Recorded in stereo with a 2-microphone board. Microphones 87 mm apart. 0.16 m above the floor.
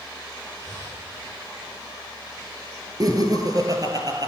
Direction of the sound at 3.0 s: 45° right (ahead or behind).